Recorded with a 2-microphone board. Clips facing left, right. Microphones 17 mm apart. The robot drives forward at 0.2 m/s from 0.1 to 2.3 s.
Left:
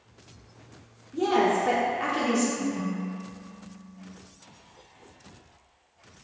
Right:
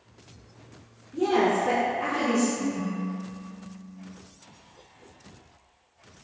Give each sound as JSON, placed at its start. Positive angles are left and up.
{"t": 1.1, "sound": "a woman speaking", "side_deg": 20, "distance_m": 0.7}
{"t": 2.6, "sound": "a ringtone", "side_deg": 50, "distance_m": 0.6}